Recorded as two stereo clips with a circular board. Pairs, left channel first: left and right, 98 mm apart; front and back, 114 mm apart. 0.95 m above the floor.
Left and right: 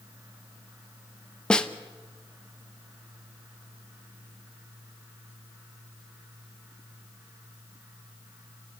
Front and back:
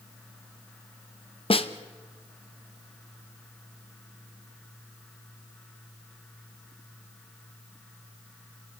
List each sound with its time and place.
1.5 s a snare drum: 10° left, 0.8 m